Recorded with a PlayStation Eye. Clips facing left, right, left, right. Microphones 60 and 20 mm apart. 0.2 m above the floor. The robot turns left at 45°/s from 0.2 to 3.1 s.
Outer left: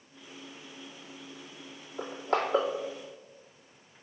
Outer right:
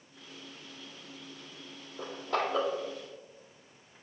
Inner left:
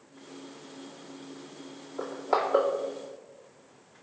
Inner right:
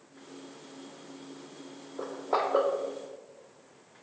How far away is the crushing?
About 1.9 m.